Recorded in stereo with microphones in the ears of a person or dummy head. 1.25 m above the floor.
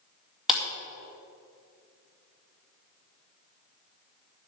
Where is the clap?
5° right (ahead or behind), 2 m.